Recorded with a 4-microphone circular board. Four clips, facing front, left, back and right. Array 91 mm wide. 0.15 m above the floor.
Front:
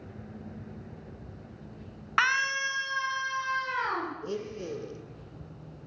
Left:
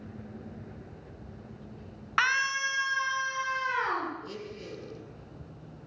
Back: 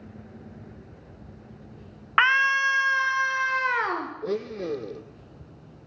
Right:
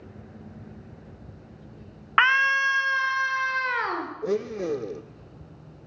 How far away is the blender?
About 1.0 m.